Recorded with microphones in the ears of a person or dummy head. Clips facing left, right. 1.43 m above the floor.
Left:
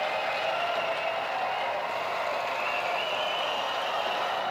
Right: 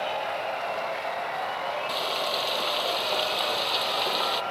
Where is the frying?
50° right (ahead or behind).